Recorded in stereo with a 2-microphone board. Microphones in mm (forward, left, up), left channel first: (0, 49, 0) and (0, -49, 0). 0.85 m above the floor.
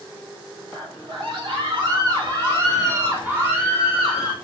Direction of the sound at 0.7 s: 65° right (ahead or behind).